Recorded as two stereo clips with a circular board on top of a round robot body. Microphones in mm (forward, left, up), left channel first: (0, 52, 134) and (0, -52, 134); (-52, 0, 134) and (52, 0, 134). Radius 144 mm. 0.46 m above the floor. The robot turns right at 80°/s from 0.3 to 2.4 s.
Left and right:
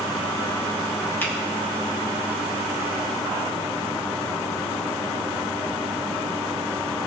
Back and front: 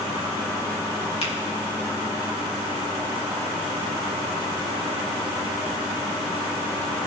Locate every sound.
1.2 s a finger snap: 160° left, 3 m; by 1.3 s 170° left, 3 m